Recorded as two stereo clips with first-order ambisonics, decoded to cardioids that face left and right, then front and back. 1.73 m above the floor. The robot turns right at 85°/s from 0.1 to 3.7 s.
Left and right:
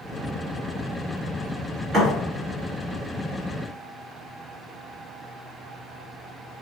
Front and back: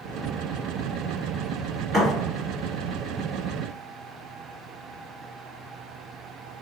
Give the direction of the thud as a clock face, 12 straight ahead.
3 o'clock.